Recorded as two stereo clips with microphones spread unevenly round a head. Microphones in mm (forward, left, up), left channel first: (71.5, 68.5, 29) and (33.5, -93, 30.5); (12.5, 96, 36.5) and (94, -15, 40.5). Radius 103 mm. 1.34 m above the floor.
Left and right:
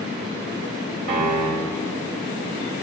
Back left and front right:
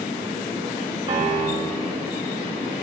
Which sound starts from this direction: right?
A piano, at 1.1 s.